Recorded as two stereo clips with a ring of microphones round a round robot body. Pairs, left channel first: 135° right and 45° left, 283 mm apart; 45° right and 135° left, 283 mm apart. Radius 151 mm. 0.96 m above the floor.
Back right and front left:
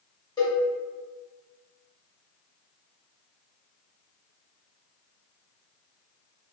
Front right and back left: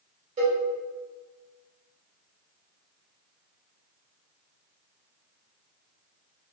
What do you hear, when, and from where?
0.4 s a cowbell: 170° left, 0.8 m